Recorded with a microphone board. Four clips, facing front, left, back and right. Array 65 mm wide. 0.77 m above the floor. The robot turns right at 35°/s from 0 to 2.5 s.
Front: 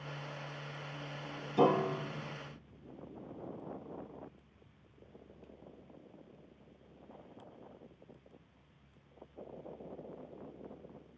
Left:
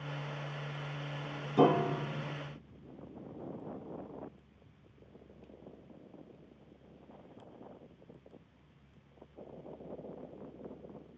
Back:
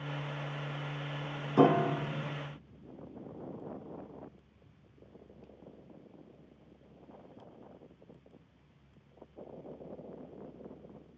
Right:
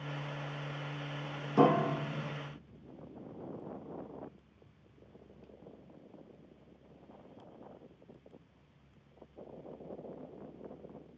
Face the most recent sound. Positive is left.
turn(degrees=-125)